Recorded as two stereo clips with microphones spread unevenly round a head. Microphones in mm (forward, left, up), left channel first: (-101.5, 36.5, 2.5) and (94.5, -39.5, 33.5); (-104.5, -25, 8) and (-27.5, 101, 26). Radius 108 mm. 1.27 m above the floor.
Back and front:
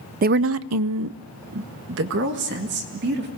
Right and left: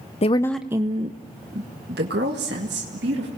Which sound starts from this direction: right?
A woman speaking, at 0.2 s.